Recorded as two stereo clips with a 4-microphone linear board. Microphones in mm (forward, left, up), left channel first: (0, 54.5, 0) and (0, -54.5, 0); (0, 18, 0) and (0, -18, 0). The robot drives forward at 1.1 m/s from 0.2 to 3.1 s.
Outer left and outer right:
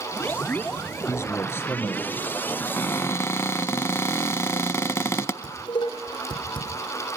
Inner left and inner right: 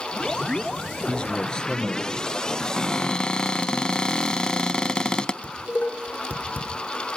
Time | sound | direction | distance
1.1 | a man speaking | 25° left (ahead or behind) | 3 m
2.6 | a cupboard door | 20° left (ahead or behind) | 0.7 m
5.4 | dishes clattering | 45° left (ahead or behind) | 4.5 m